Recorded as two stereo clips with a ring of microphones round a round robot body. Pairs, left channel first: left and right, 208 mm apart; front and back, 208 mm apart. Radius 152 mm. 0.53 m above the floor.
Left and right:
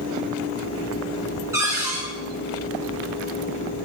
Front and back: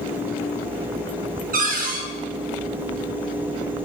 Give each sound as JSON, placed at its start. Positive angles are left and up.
{"t": 1.5, "sound": "a cupboard door", "azimuth_deg": -160, "distance_m": 0.6}